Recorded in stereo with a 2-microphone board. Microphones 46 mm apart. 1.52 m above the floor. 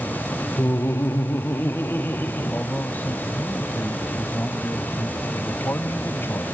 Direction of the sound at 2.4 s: 40° left (ahead or behind).